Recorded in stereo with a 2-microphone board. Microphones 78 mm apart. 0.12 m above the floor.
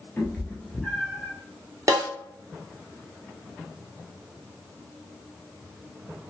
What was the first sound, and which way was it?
A cat meowing, 25° left (ahead or behind).